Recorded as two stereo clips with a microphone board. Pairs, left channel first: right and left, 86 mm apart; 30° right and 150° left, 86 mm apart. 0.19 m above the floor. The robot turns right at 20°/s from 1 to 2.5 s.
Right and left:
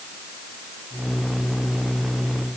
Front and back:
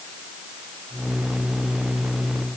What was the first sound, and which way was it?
Only background noise.